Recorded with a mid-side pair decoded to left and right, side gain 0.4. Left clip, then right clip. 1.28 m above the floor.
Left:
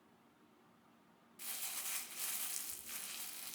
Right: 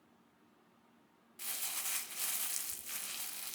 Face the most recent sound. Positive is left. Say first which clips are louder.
# right 4 dB
turn(degrees=-40)